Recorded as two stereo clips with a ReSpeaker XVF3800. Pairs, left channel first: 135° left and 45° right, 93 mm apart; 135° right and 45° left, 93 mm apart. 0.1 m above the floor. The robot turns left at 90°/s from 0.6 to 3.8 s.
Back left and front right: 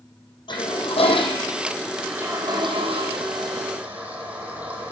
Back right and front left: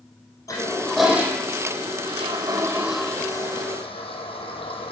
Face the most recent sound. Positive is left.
turn(degrees=-115)